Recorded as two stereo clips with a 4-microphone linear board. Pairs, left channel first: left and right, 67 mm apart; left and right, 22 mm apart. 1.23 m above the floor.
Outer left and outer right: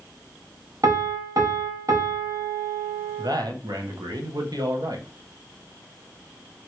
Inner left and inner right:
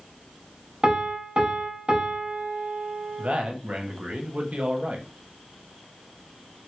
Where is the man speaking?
75° right (ahead or behind), 0.6 m.